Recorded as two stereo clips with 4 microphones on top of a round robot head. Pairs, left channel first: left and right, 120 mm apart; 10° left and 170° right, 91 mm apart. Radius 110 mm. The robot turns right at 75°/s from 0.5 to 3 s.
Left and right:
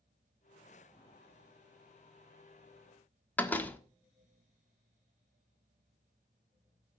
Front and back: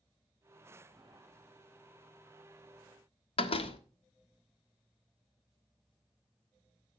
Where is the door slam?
15° left, 1.4 m.